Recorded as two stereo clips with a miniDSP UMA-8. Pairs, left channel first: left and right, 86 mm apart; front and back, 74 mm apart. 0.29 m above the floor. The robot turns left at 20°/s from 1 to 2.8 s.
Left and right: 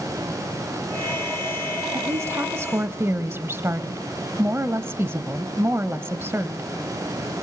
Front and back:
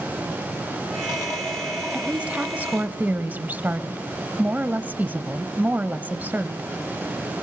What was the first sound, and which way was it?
A woman speaking, 115° right.